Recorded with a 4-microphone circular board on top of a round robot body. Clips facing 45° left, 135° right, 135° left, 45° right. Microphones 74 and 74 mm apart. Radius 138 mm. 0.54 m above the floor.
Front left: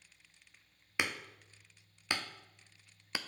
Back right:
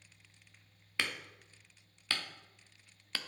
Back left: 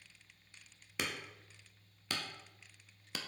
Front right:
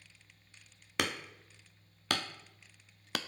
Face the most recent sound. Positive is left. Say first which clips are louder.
# front left 2 dB, front right 6 dB
turn(degrees=-25)